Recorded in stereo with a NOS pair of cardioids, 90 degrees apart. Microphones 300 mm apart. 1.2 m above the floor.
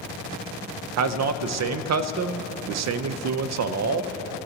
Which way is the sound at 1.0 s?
60° right.